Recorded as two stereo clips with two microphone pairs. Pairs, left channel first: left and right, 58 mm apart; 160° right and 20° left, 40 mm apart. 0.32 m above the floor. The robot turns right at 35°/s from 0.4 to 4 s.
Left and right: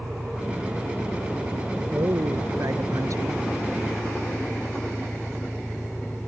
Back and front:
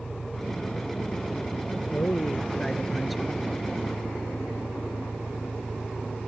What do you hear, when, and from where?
0.0 s an engine running: 135° right; by 6.3 s 5° right
1.9 s a man speaking: 115° right; by 3.4 s 60° right